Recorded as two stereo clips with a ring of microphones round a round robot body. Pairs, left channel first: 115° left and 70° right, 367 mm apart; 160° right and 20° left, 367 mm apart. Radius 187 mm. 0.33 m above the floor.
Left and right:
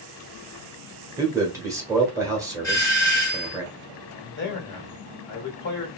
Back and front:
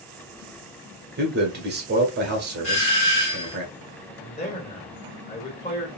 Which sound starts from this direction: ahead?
A man speaking, at 1.2 s.